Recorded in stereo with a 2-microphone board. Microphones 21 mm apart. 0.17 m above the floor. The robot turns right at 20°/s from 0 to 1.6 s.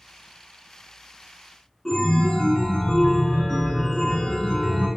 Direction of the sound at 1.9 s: 20° left (ahead or behind).